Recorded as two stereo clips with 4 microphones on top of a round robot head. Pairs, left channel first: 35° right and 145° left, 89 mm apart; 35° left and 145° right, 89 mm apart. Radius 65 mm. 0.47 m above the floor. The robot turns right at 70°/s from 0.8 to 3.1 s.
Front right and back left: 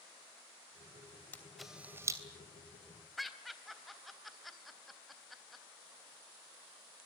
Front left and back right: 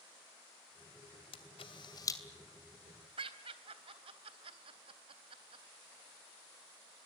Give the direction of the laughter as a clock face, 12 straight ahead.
4 o'clock.